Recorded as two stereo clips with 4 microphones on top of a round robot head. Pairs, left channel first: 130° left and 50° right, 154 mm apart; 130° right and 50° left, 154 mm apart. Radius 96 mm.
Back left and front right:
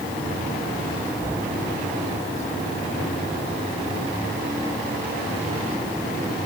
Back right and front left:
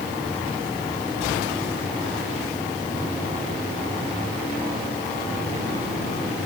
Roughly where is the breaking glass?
No breaking glass in this recording.